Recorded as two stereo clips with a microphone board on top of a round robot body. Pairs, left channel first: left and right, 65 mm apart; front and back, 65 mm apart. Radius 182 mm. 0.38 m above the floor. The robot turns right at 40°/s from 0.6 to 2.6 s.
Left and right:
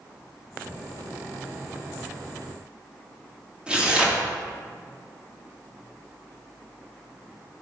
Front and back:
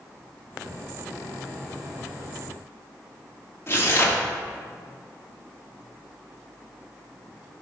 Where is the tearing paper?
25° right, 1.7 m.